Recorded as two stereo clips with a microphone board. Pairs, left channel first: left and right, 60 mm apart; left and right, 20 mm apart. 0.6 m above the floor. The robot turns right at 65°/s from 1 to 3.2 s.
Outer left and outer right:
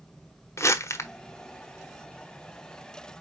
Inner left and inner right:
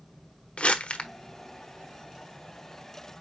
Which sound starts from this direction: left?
Crumpling, at 0.6 s.